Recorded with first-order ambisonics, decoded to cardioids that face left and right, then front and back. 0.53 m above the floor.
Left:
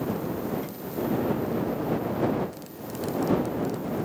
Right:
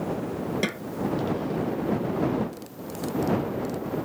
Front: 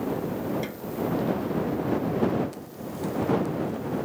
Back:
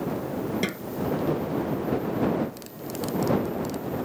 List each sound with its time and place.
0.6 s a snare drum: 120° right